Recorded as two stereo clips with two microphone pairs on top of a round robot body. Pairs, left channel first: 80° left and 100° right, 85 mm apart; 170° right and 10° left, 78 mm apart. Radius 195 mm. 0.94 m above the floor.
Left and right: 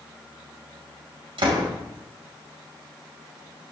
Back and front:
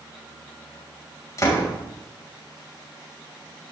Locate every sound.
1.4 s a door slam: 115° right, 5.5 m